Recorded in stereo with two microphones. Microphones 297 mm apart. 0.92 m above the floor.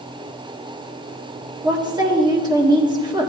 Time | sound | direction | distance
1.6 | a woman speaking | 15° right (ahead or behind) | 1.8 m